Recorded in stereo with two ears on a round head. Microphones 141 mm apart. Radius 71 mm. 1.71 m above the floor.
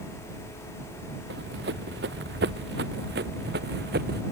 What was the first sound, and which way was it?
Running footsteps, 75° right (ahead or behind).